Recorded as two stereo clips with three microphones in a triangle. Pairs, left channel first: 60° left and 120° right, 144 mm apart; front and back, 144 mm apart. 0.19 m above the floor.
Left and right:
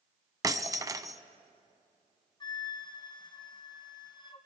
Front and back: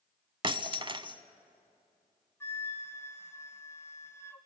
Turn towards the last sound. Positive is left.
turn(degrees=55)